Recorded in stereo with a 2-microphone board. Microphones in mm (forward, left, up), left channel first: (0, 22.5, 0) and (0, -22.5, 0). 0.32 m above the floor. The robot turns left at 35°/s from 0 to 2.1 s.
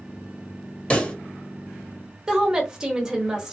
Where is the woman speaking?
15° right (ahead or behind), 1.0 m.